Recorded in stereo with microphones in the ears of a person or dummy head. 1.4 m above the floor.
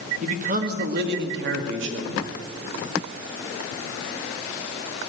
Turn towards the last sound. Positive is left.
turn(degrees=-75)  # may be behind; listen again after turning